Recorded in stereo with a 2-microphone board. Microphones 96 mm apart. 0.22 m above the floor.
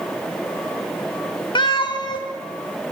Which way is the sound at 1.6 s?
55° left (ahead or behind).